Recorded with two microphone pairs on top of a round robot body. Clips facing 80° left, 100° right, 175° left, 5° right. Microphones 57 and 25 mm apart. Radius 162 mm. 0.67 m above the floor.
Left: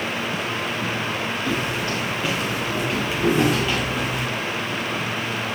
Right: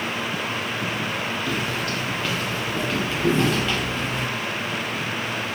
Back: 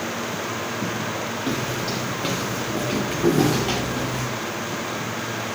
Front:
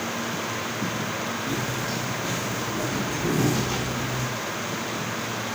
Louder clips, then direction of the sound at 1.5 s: Left 2 dB, back 2 dB; 150° left.